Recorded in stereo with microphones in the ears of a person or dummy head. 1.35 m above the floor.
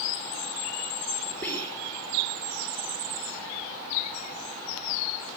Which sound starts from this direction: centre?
Whispering, at 1.4 s.